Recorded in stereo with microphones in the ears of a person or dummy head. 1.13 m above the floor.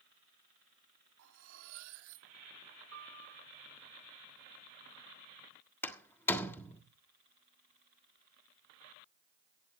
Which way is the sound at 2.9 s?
80° right.